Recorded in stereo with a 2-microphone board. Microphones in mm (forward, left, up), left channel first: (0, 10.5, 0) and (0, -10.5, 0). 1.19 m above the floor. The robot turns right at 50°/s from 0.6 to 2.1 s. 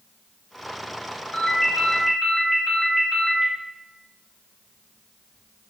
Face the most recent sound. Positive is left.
turn(degrees=180)